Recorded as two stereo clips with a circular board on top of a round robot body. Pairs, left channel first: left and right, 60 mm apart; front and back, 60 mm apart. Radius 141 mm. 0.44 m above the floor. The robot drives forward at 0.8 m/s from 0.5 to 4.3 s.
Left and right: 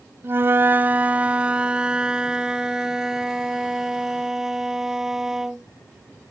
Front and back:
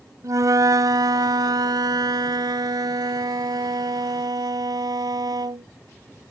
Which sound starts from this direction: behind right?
A flute, at 0.2 s.